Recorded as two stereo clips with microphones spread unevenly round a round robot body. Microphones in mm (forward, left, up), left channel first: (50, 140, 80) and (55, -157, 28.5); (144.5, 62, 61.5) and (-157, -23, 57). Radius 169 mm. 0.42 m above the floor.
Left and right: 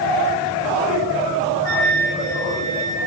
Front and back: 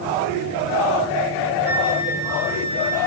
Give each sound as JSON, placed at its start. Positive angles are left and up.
{"t": 1.6, "sound": "a flute", "azimuth_deg": -80, "distance_m": 7.5}